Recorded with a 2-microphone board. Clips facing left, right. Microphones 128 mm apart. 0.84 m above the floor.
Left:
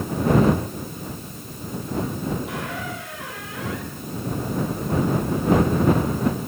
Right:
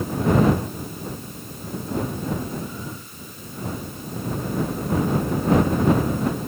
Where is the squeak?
80° left.